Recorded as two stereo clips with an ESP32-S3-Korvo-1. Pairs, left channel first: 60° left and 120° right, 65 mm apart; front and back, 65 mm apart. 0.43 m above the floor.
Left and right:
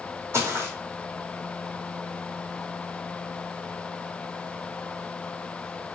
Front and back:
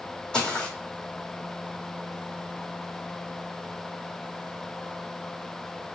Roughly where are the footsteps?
Right.